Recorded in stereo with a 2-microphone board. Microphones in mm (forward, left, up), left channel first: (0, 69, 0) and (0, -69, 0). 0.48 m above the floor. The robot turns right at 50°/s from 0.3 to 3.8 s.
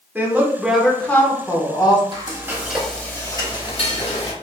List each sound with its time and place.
0.1 s a woman speaking: 25° right, 0.9 m; by 2.0 s 60° left, 0.9 m
2.1 s frying: 35° right, 0.9 m; by 4.3 s 50° left, 0.9 m